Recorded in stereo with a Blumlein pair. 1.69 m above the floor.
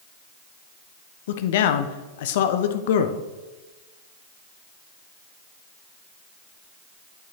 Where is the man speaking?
55° left, 0.8 m.